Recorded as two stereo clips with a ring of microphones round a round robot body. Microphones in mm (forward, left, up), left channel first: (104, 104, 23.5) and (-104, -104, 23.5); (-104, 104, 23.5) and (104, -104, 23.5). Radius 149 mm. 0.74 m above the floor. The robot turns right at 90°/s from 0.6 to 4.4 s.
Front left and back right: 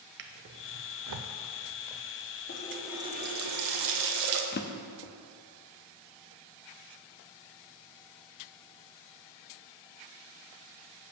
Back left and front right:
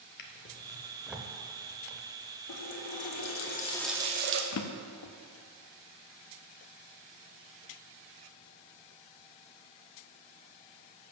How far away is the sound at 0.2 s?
About 0.5 m.